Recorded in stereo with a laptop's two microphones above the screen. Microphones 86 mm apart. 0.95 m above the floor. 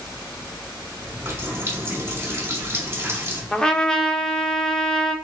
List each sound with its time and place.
1.0 s a running tap: 30° right (ahead or behind), 2 m
3.5 s a trumpet: 10° left (ahead or behind), 0.6 m